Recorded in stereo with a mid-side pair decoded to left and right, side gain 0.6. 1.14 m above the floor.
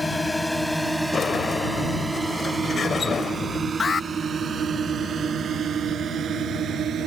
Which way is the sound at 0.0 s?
15° left.